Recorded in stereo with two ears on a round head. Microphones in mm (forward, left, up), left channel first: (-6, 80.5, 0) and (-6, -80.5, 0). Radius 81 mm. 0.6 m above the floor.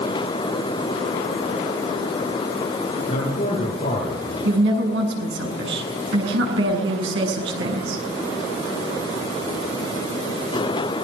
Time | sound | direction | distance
3.1 | a man speaking | 35° left (ahead or behind) | 8.5 m
4.5 | a woman speaking | 70° right (ahead or behind) | 7.5 m